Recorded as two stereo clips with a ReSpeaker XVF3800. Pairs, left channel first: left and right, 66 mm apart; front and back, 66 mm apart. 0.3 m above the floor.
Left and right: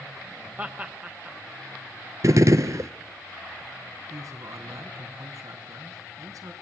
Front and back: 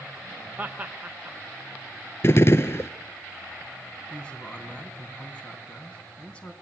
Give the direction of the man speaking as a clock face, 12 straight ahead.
2 o'clock.